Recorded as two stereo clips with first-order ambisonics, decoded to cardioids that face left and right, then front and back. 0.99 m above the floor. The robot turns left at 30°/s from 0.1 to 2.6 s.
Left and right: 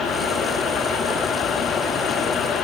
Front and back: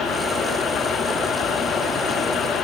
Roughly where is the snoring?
No snoring in this recording.